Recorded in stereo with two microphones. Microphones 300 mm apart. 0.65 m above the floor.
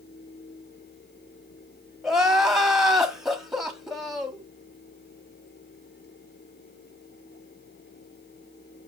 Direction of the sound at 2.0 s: Centre (ahead or behind).